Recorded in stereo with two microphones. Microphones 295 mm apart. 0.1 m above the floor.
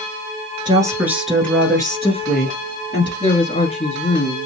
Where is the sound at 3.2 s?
25° left (ahead or behind), 1.1 m.